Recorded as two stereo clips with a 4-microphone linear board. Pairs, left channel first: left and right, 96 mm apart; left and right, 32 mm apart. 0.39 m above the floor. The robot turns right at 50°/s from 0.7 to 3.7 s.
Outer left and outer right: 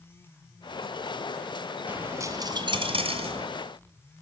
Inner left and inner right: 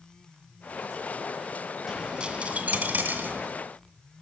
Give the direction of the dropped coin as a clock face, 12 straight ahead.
6 o'clock.